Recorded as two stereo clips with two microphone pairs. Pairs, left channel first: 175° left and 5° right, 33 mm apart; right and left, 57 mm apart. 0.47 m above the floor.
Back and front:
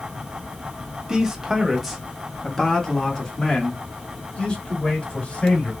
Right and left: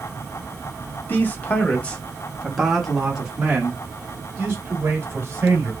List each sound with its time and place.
1.1 s a man speaking: 70° right, 1.3 m; by 5.7 s 140° left, 2.5 m